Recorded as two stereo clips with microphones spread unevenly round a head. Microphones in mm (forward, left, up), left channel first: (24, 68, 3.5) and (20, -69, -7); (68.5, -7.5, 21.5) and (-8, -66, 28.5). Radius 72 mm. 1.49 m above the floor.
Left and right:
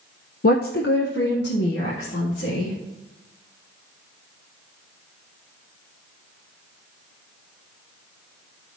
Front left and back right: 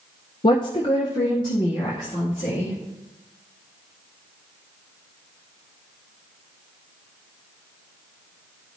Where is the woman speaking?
70° left, 0.5 m; by 2.8 s 95° left, 2.5 m.